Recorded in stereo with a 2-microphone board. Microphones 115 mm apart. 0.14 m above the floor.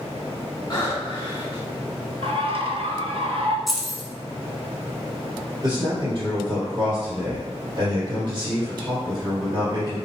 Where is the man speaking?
40° right (ahead or behind), 2.0 m.